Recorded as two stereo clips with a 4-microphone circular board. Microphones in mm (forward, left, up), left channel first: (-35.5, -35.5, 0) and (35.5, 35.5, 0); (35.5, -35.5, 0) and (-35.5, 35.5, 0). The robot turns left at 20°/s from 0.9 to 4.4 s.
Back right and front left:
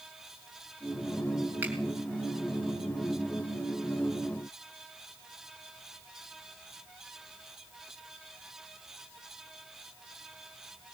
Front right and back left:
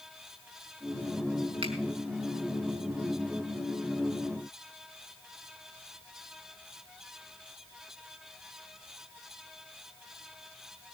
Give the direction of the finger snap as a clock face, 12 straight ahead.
8 o'clock.